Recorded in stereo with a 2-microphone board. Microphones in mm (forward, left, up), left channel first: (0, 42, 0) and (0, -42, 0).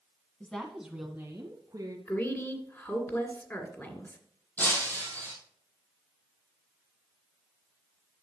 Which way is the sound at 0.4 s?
15° left (ahead or behind).